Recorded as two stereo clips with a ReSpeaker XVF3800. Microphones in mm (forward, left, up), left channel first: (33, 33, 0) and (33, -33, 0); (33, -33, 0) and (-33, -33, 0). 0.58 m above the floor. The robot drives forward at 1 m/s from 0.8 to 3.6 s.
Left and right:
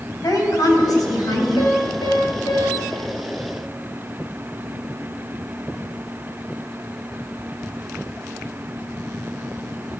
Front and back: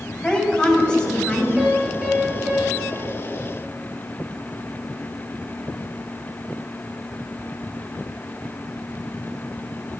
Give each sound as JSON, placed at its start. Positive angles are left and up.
{"t": 0.2, "sound": "a woman speaking", "azimuth_deg": 75, "distance_m": 4.0}
{"t": 1.6, "sound": "a piano", "azimuth_deg": 95, "distance_m": 4.5}